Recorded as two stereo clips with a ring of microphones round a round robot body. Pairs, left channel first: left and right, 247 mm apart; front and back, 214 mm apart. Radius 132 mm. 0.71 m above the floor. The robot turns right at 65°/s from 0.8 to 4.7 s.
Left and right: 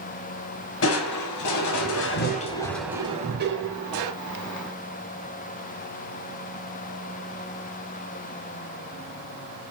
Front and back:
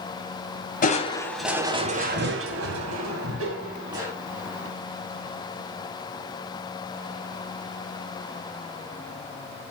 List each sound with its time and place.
0.8 s crushing: 50° left, 2 m; by 4.1 s 95° right, 2 m